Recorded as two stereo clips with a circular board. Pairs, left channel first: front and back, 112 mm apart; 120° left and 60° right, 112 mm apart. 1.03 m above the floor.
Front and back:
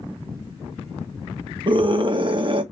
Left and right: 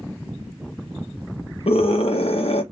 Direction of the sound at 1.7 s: 140° left.